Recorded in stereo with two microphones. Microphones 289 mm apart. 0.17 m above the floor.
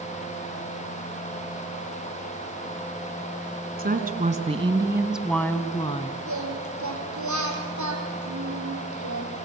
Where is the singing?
80° right, 5 m.